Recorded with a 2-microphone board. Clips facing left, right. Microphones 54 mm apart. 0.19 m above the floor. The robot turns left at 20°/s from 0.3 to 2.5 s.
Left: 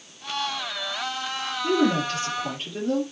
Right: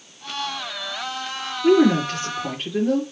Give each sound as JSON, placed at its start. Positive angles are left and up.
{"t": 1.6, "sound": "a woman speaking", "side_deg": -60, "distance_m": 3.5}